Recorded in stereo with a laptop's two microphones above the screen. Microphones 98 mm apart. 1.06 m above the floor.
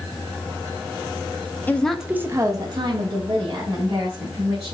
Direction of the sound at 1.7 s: 20° left (ahead or behind).